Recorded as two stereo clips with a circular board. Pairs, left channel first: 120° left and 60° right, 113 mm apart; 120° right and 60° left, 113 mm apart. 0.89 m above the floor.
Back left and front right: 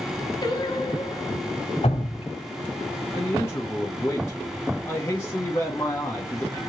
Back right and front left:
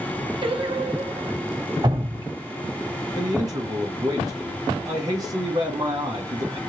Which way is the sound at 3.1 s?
70° left.